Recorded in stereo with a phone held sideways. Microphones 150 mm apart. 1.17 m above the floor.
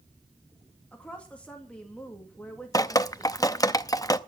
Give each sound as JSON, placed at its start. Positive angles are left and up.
{"t": 0.9, "sound": "a woman speaking", "side_deg": 10, "distance_m": 2.5}
{"t": 2.7, "sound": "dripping", "side_deg": 25, "distance_m": 0.6}